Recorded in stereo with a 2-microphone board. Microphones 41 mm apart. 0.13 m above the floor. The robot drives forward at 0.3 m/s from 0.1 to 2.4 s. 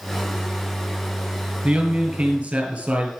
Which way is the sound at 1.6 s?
40° right (ahead or behind).